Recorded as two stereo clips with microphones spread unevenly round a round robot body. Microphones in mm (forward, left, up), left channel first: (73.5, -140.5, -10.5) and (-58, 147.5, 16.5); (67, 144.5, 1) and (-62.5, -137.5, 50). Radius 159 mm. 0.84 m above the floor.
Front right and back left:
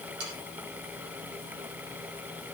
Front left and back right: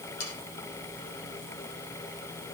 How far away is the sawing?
About 5.5 m.